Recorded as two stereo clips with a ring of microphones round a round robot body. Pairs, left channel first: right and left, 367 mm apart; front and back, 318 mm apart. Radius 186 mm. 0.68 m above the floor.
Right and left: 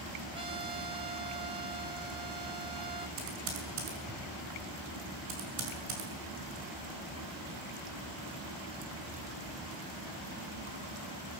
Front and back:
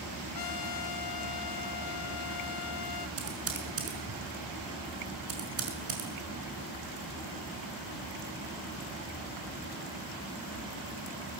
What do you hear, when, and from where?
0.3 s a trumpet: 15° left, 1.8 m
3.2 s typing on a keyboard: 135° left, 6 m